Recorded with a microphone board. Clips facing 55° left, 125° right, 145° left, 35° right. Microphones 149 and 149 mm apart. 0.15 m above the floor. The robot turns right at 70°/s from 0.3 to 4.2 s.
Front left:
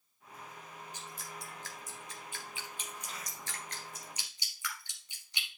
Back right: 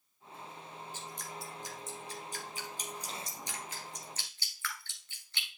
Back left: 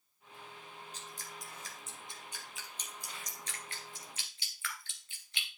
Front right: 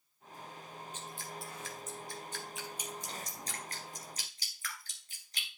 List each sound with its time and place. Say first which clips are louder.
0.9 s dripping: back right 3 dB, front right 4 dB; 120° left, 2 m; by 5.5 s 10° right, 2 m